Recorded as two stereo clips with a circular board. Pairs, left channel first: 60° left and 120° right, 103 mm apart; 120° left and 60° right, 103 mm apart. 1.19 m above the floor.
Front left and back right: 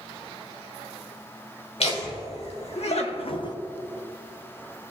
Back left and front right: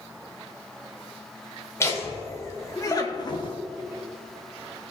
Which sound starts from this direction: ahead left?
Laughter, at 1.8 s.